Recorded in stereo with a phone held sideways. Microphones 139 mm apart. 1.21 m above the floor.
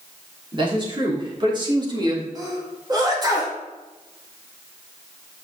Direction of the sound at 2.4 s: 30° right (ahead or behind).